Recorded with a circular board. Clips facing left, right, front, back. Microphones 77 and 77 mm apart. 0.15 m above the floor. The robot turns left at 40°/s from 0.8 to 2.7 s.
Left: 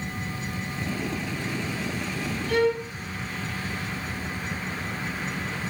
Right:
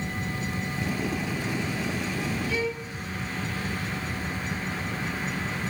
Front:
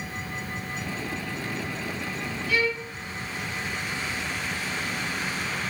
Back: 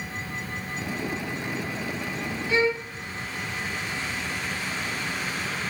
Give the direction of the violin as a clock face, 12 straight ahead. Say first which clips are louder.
Left 7 dB, back 3 dB; 8 o'clock.